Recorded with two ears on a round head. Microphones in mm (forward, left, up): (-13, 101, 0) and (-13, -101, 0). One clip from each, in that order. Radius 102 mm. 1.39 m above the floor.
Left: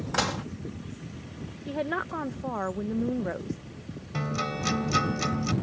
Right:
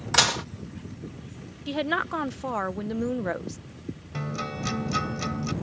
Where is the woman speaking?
80° right.